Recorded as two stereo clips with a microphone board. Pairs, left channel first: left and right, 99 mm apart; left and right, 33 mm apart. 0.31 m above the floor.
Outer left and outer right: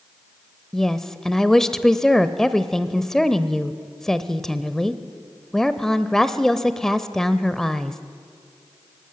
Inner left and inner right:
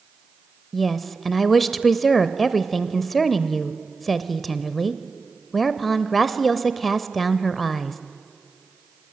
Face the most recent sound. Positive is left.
turn(degrees=5)  # may be behind; listen again after turning